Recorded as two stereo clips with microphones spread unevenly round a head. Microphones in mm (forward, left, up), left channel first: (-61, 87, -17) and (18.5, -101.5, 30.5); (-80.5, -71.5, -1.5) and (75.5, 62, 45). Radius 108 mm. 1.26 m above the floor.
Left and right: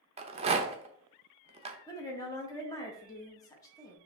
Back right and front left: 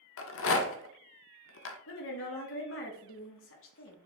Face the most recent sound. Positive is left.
turn(degrees=-170)